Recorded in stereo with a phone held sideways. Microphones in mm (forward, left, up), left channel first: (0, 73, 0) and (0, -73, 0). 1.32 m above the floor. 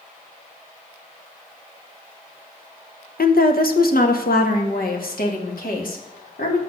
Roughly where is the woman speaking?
Left.